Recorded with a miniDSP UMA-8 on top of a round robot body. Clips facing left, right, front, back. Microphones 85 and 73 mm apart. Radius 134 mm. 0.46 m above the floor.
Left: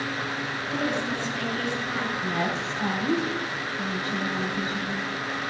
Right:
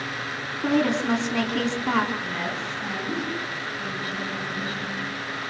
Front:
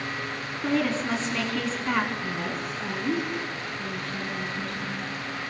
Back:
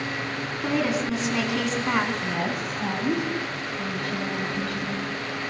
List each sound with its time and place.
0.6 s a woman speaking: 105° right, 6.5 m
2.2 s a woman speaking: 150° left, 5 m